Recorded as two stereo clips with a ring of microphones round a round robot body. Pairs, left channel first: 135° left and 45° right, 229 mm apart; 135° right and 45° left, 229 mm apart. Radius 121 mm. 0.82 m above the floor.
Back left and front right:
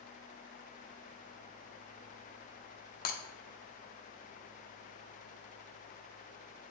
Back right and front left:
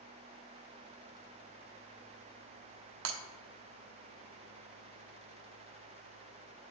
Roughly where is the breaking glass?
Left.